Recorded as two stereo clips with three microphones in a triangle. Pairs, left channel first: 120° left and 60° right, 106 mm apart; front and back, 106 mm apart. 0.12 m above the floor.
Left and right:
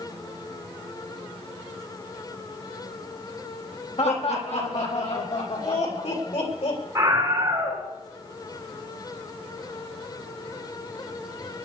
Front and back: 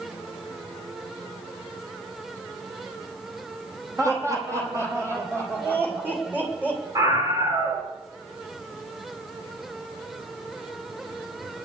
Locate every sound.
4.0 s laughter: 120° left, 6 m; by 6.8 s 105° left, 6.5 m
7.0 s a scream: 120° right, 8 m